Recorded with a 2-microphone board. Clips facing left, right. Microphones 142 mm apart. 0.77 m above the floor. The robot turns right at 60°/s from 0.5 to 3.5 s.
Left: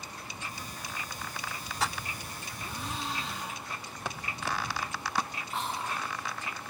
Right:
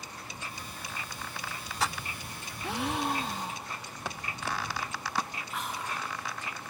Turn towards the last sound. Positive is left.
turn(degrees=30)  # may be behind; listen again after turning